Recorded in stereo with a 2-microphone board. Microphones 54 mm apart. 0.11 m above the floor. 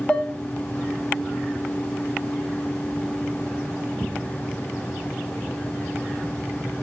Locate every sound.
0.1 s dishes clattering: 20° left (ahead or behind), 1.2 m